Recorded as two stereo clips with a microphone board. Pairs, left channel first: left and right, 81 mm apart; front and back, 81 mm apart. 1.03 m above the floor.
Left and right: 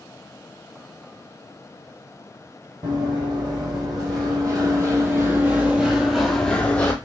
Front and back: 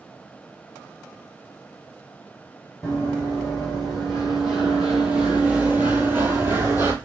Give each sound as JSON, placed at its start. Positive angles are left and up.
{"t": 2.8, "sound": "running footsteps", "azimuth_deg": -85, "distance_m": 2.0}